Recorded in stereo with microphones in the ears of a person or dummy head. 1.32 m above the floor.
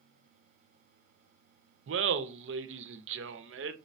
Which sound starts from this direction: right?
Laughter, at 1.9 s.